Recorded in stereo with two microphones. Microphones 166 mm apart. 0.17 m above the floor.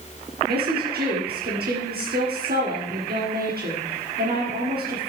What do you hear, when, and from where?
0.5 s a woman speaking: 70° right (ahead or behind), 4 m